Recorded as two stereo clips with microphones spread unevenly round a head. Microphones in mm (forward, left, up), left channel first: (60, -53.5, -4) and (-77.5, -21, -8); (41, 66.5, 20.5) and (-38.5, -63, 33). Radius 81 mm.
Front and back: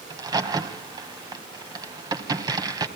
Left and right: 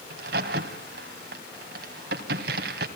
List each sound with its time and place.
0.1 s a crack: 135° right, 2.5 m